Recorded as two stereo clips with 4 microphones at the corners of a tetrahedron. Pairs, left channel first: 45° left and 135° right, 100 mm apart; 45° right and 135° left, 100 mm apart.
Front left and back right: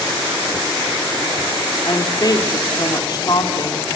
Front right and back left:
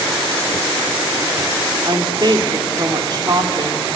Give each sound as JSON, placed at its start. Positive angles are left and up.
{"t": 1.9, "sound": "a woman speaking", "azimuth_deg": 90, "distance_m": 3.0}